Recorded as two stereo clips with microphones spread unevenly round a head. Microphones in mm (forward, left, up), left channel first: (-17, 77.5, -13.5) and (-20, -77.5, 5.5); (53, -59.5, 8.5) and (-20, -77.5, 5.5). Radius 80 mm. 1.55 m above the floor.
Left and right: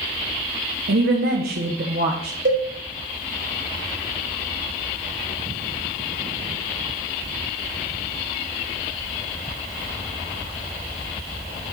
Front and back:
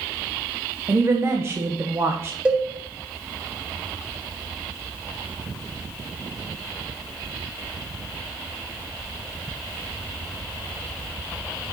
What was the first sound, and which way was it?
A woman speaking, 110° right.